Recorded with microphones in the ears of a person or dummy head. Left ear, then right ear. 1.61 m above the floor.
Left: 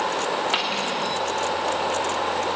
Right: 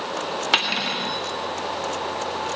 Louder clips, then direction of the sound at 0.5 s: Right 2 dB; 20° right (ahead or behind).